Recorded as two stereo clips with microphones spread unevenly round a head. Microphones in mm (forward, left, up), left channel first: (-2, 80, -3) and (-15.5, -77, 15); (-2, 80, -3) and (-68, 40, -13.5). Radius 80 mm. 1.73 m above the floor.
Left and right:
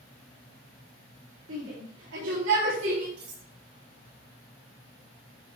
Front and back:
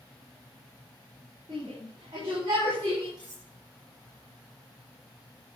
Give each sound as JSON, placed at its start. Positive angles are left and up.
{"t": 1.5, "sound": "a shout", "azimuth_deg": -85, "distance_m": 4.5}
{"t": 3.2, "sound": "cutlery clinking", "azimuth_deg": -90, "distance_m": 7.0}